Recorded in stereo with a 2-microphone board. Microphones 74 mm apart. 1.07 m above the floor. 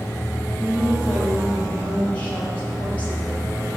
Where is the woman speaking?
20° left (ahead or behind), 6.5 m.